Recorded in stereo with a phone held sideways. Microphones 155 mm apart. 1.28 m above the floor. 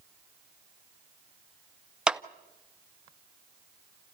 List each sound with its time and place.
2.1 s a clap: 5° right (ahead or behind), 0.6 m